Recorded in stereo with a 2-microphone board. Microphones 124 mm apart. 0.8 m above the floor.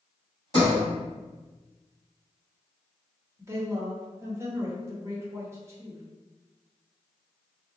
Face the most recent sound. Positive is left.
turn(degrees=-25)  # may be behind; listen again after turning